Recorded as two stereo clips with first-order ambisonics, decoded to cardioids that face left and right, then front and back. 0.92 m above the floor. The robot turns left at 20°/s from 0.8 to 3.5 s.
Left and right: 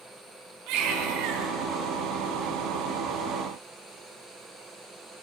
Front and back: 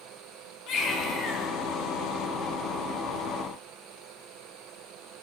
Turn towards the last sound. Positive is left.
turn(degrees=-110)